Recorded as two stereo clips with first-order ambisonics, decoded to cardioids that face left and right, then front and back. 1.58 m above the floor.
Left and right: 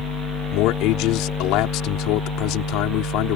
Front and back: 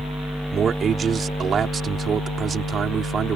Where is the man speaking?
115° left.